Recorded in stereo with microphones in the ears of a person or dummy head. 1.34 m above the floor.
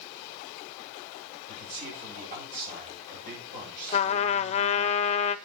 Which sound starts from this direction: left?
A trumpet, at 3.9 s.